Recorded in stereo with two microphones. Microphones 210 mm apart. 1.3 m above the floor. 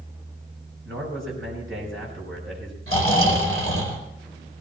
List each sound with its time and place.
0.8 s a man speaking: 70° right (ahead or behind), 6.5 m
2.9 s snoring: 80° right, 4.5 m